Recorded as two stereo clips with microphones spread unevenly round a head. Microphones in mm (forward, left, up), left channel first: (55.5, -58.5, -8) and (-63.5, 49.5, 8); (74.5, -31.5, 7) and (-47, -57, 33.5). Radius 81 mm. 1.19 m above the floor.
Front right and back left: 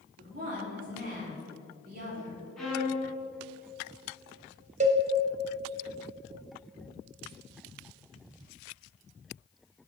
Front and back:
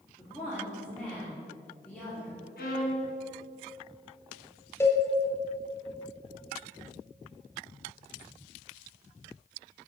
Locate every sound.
0.2 s a woman speaking: 95° left, 3.5 m
2.6 s a violin: 50° left, 3 m
4.8 s a cowbell: 90° left, 1.0 m